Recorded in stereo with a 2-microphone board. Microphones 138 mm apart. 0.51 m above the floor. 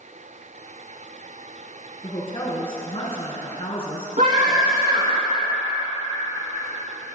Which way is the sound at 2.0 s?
40° left (ahead or behind).